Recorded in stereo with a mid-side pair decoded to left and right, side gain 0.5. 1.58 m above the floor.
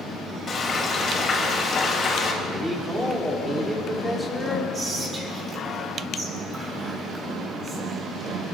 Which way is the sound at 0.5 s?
35° left.